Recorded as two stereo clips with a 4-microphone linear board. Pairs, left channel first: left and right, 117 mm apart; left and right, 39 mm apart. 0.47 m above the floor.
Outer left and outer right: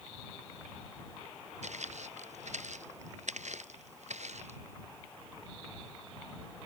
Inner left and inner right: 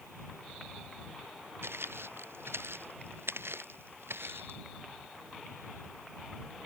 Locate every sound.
1.6 s footsteps: 80° right; by 4.6 s 75° right (ahead or behind)